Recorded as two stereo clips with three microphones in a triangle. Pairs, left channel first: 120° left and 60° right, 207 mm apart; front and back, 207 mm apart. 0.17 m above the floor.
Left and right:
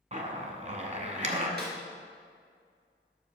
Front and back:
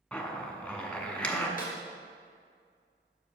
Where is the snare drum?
40° right, 2.5 m.